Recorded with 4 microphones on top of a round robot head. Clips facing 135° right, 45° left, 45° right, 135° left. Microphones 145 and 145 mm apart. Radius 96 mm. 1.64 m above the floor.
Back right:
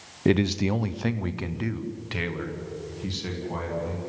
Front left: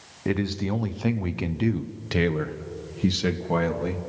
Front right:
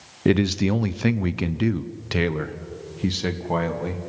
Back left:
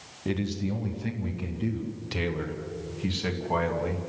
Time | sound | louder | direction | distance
0.2 | a man speaking | back right 4 dB, front right 10 dB | 70° right | 0.9 m